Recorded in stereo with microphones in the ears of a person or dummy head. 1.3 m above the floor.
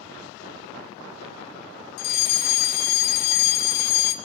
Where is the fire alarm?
50° left (ahead or behind), 1.6 m.